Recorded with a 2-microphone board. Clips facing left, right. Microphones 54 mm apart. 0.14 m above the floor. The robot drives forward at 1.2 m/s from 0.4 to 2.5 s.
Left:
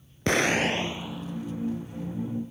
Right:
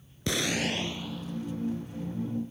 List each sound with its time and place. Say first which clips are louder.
0.3 s an explosion: left 6 dB; 50° left (ahead or behind); by 2.2 s 10° left (ahead or behind)